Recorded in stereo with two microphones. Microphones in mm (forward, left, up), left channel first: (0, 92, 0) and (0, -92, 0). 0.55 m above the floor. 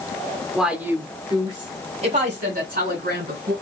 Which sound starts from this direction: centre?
A woman speaking, at 0.6 s.